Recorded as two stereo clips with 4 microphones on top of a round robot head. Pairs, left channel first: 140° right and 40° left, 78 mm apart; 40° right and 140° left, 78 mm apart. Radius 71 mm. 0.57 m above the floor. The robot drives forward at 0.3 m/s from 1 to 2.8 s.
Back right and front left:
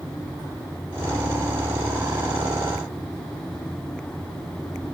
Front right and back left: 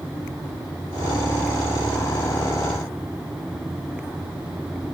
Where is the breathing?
I don't hear breathing.